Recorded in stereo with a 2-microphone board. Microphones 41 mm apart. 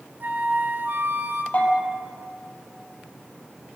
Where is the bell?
40° left (ahead or behind), 5.5 m.